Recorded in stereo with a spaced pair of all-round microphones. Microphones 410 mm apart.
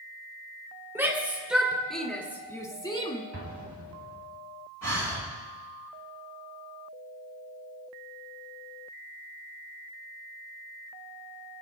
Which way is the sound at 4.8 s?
40° right (ahead or behind).